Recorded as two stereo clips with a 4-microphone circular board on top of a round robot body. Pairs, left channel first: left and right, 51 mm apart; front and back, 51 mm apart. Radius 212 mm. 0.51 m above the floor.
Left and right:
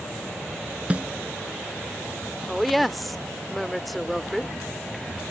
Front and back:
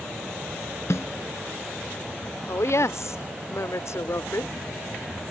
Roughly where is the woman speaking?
Ahead.